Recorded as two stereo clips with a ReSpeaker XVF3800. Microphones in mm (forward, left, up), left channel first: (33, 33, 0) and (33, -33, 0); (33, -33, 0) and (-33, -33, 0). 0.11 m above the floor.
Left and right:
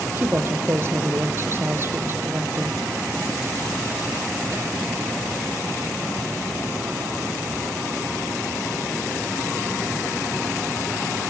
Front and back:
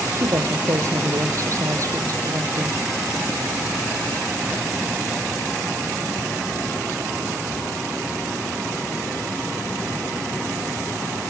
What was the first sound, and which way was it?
A woman speaking, 145° right.